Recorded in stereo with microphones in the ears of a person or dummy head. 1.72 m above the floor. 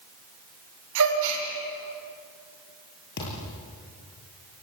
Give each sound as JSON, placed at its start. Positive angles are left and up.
{"t": 0.9, "sound": "a gasp", "side_deg": -75, "distance_m": 6.0}
{"t": 3.2, "sound": "a thud", "side_deg": 60, "distance_m": 7.0}